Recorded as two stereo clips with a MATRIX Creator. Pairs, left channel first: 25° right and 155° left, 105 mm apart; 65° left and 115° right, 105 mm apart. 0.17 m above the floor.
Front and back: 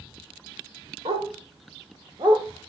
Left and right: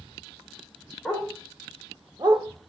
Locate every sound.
1.1 s a dog barking: 155° left, 2.5 m; by 2.5 s 150° right, 1.3 m